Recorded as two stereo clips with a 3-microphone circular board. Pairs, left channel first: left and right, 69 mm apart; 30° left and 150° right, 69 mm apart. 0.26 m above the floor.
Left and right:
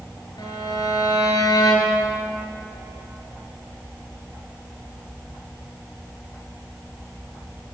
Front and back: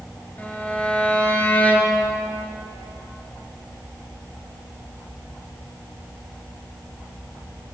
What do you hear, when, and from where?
0.4 s a violin: 100° left, 4 m